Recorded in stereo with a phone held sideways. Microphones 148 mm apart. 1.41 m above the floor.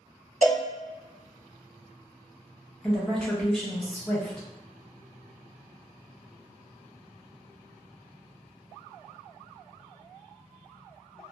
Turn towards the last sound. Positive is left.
turn(degrees=5)  # may be behind; listen again after turning